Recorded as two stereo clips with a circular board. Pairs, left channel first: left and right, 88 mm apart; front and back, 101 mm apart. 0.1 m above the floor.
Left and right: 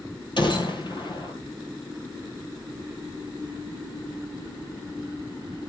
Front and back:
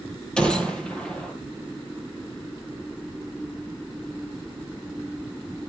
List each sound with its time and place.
0.4 s a gunshot: 80° left, 2 m